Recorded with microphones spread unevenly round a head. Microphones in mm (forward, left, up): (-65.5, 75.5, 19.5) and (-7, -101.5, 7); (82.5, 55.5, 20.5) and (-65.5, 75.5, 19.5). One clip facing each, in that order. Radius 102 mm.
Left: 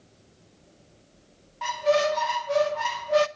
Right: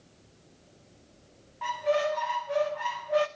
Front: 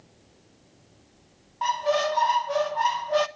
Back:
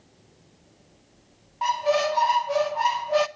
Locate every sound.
1.6 s a squeak: 90° left, 1.0 m